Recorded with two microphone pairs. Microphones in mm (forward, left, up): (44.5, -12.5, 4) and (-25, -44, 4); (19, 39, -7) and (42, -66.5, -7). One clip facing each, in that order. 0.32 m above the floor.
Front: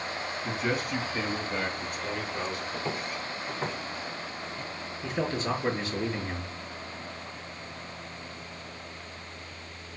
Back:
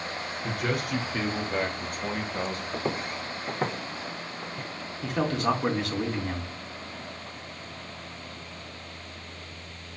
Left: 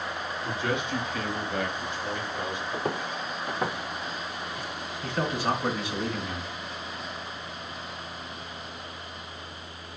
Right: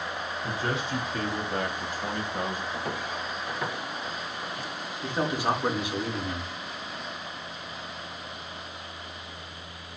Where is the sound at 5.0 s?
150° right, 3.5 m.